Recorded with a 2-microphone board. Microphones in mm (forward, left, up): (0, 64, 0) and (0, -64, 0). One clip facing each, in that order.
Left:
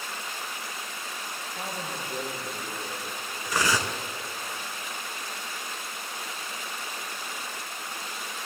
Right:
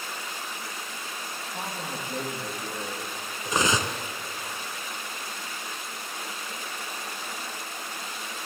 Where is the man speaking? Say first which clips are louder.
Right 1 dB; 65° right (ahead or behind), 5.5 m; by 3.1 s 70° right (ahead or behind), 4.5 m.